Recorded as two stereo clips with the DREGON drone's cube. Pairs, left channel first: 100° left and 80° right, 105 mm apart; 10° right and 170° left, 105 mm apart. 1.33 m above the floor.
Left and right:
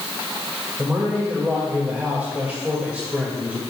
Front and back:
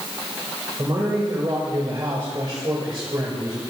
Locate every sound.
0.8 s a man speaking: 150° right, 2 m